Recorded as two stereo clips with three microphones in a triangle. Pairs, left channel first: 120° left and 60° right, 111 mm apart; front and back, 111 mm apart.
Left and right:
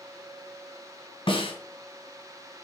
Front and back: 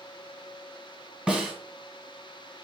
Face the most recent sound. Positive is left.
turn(degrees=100)